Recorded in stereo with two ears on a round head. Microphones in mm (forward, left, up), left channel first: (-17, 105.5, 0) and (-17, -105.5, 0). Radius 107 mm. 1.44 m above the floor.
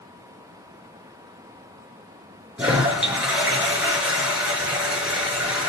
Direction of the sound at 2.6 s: 5° right (ahead or behind).